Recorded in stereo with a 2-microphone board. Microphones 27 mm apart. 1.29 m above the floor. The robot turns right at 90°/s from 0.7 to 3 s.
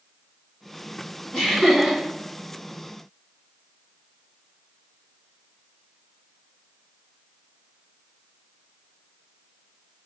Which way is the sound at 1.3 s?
145° left.